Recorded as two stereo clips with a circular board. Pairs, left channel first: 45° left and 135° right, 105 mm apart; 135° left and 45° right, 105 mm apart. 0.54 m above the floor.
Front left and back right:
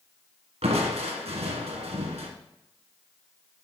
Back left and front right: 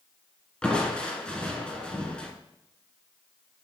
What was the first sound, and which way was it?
Crushing, 145° right.